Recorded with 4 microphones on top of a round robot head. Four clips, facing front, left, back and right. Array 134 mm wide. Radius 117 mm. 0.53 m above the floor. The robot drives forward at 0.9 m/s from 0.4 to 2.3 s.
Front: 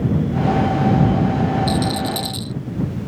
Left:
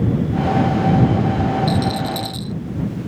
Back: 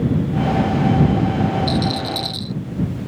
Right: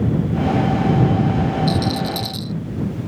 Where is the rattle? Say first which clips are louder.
Left 1 dB, front 1 dB; 55° right.